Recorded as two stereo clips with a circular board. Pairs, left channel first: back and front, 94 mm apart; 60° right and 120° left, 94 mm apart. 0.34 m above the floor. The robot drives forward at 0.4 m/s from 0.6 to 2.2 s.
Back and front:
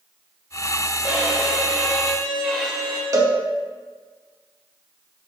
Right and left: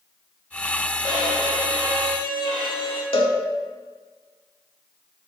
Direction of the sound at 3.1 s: 55° right.